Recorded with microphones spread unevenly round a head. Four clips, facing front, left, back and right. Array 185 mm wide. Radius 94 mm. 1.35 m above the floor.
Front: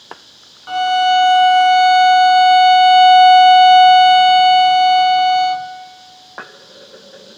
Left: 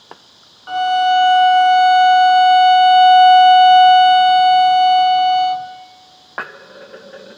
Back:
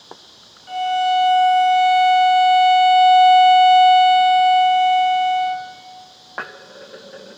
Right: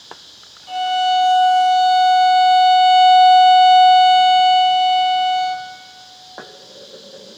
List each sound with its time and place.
0.7 s a violin: 35° left, 1.1 m